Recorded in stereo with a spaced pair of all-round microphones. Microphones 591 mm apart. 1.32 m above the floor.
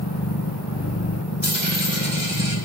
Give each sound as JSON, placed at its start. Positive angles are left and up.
{"t": 0.0, "sound": "a machine running", "side_deg": 30, "distance_m": 1.1}
{"t": 1.4, "sound": "a dropped coin", "side_deg": -35, "distance_m": 4.0}